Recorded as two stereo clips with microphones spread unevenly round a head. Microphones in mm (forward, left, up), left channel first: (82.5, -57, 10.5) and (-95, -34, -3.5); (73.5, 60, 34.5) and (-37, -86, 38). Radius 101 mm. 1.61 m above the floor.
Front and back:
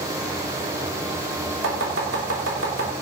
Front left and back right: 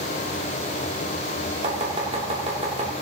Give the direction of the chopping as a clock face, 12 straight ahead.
6 o'clock.